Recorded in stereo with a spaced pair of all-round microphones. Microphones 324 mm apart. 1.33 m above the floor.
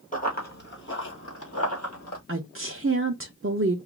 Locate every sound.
0.1 s running footsteps: 25° left (ahead or behind), 1.9 m; by 2.2 s 50° left (ahead or behind), 2.5 m
2.3 s a woman speaking: 40° right (ahead or behind), 0.6 m